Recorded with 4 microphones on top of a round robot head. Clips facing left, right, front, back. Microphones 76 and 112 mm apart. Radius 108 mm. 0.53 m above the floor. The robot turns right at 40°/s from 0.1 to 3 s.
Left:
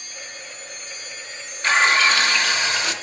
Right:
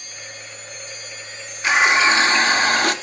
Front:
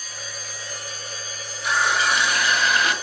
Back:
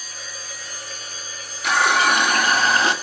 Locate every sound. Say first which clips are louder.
1.6 s a running tap: right 2 dB, back 4 dB; 170° right, 1.2 m; by 2.9 s 120° right, 1.2 m